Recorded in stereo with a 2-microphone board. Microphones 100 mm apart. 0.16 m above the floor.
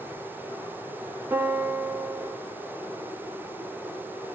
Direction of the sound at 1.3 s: 20° right (ahead or behind).